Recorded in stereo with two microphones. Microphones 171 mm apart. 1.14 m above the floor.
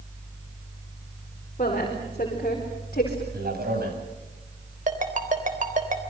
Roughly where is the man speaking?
Right.